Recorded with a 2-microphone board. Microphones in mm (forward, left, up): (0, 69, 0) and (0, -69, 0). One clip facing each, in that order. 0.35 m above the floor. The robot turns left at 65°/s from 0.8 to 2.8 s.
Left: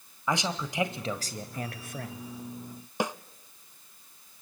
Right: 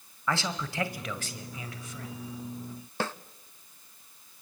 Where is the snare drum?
15° left (ahead or behind), 0.6 m.